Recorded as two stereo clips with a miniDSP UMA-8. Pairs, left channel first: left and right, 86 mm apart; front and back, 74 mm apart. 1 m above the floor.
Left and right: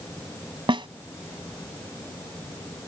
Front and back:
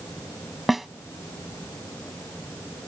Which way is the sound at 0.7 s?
95° right.